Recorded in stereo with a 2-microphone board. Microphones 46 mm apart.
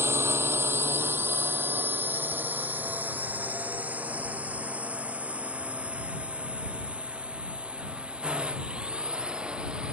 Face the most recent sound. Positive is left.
turn(degrees=-20)  # may be behind; listen again after turning